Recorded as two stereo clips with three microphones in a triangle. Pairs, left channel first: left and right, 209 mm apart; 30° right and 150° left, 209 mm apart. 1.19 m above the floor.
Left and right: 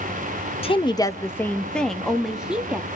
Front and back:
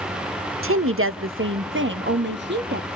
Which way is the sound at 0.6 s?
150° left.